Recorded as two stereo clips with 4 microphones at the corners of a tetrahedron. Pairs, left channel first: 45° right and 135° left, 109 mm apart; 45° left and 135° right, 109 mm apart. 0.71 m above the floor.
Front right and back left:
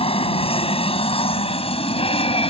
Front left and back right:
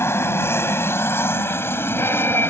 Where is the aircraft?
20° right; by 2.5 s 25° right.